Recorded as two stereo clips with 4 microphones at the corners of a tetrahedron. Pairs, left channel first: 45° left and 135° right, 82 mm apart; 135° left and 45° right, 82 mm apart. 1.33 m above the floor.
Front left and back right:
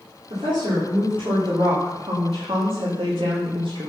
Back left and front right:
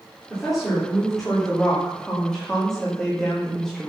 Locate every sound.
0.3 s a woman speaking: 135° right, 3.5 m; by 3.9 s 140° right, 1.5 m